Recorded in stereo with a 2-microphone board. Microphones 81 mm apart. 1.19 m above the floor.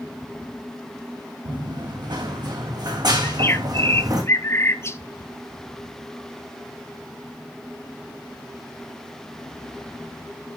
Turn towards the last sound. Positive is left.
turn(degrees=35)  # may be behind; listen again after turning